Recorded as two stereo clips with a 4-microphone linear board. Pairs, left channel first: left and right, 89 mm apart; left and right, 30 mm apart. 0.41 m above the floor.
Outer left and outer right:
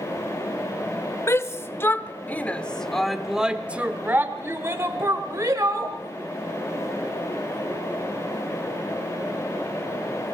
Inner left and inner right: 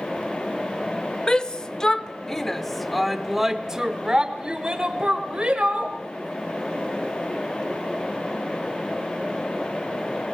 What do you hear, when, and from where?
1.3 s a shout: 30° left (ahead or behind), 1.4 m; by 6.0 s 40° right (ahead or behind), 1.9 m